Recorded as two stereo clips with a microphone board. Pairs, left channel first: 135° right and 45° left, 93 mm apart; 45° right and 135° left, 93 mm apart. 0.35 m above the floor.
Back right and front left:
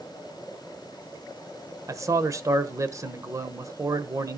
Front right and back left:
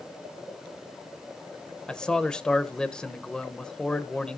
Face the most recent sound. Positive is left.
turn(degrees=30)